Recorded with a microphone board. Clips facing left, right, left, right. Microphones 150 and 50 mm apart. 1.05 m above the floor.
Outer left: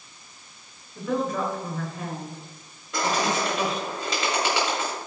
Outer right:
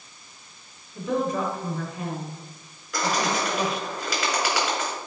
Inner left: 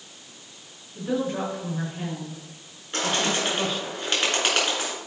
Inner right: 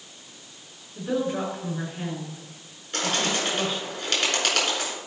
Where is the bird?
25° left (ahead or behind), 4 m.